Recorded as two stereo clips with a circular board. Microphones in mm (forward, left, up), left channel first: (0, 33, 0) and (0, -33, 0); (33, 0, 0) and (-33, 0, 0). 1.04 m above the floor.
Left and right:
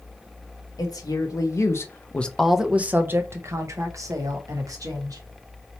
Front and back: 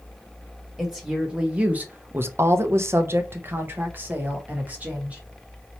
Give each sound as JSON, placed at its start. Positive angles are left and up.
{"t": 0.8, "sound": "a woman speaking", "azimuth_deg": 95, "distance_m": 1.0}